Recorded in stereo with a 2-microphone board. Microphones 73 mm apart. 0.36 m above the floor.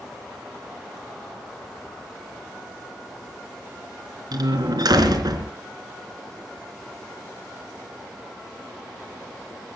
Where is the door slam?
65° right (ahead or behind), 3.5 m.